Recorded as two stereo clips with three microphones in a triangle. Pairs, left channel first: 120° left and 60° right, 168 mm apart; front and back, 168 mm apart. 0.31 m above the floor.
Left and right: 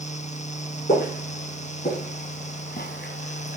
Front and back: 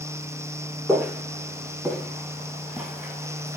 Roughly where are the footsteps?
Left.